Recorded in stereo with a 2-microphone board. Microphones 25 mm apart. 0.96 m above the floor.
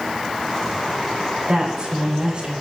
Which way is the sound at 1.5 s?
35° right (ahead or behind).